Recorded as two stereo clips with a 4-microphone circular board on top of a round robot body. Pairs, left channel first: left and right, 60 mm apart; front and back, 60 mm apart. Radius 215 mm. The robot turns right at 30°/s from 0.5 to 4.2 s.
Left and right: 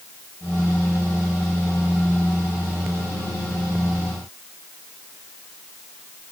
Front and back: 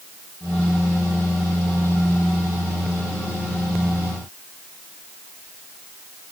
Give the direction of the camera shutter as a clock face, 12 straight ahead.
I don't hear a camera shutter.